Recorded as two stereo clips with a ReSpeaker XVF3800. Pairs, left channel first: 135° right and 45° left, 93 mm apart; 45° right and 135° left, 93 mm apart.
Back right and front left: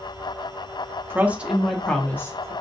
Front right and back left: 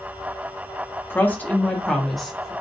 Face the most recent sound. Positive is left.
turn(degrees=-140)